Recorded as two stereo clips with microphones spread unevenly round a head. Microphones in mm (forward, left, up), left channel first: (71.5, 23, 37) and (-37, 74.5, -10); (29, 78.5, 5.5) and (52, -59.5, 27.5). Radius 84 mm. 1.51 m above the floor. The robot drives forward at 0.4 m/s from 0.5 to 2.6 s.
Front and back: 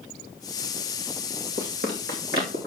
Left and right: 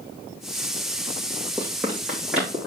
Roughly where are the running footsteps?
Behind.